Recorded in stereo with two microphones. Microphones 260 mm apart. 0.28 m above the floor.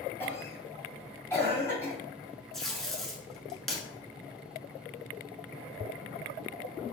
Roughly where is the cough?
Centre.